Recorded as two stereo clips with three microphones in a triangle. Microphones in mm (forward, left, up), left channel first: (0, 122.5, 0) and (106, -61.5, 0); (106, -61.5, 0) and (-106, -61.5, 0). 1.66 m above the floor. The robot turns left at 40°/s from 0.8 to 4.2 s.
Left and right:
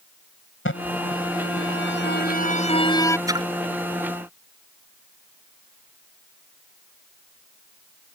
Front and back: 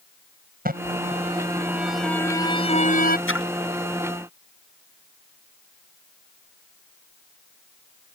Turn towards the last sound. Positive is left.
turn(degrees=-25)